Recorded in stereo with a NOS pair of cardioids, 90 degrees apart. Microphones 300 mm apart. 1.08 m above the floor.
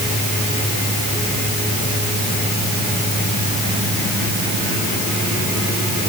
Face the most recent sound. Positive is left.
No sound to turn to.